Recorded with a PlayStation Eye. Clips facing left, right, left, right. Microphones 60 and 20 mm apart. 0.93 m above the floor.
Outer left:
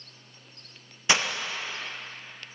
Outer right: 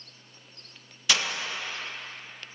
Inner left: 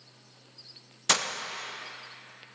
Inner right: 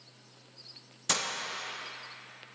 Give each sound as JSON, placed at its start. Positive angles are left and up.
{"t": 1.1, "sound": "breaking glass", "side_deg": 30, "distance_m": 0.7}